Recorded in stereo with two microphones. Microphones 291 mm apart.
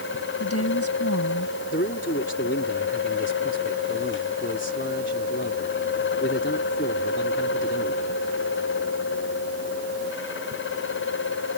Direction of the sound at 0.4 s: 55° left (ahead or behind).